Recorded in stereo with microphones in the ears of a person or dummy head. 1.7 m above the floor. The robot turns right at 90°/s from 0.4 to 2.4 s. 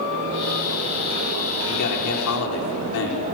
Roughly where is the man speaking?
Ahead left.